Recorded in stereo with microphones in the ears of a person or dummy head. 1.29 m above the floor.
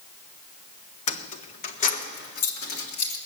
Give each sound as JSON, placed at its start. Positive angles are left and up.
{"t": 1.1, "sound": "keys jangling", "side_deg": 40, "distance_m": 0.7}